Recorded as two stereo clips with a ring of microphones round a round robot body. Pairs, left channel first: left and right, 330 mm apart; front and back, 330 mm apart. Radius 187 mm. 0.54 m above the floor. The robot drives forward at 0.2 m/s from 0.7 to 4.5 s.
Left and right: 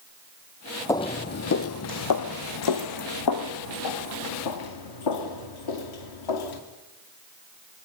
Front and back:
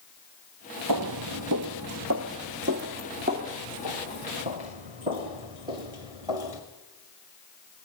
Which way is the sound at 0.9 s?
170° left.